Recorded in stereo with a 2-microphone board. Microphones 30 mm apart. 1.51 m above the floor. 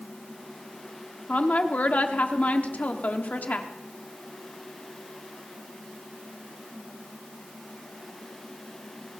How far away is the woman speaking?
About 1.1 m.